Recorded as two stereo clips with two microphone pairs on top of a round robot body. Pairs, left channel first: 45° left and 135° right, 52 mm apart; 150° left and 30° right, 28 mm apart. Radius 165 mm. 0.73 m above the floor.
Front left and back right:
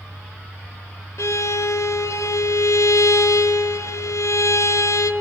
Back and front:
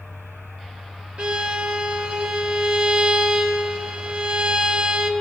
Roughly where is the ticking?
No ticking in this recording.